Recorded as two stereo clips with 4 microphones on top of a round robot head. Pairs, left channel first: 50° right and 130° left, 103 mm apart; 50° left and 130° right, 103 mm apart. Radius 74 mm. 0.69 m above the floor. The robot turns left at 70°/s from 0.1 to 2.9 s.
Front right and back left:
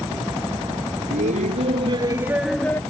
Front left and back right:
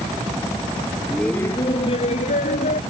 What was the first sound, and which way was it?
Laughter, 140° left.